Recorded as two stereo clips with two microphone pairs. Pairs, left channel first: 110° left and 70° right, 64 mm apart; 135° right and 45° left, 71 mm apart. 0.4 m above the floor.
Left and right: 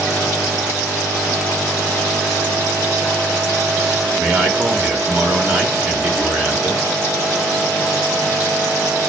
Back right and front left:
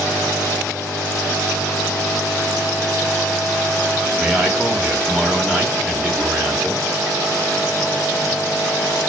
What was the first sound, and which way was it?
A man speaking, 25° right.